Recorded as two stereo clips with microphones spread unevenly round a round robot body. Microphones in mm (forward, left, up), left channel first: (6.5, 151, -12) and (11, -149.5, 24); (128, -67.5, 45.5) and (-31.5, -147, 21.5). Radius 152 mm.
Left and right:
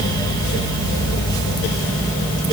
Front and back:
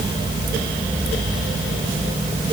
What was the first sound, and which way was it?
Only background noise.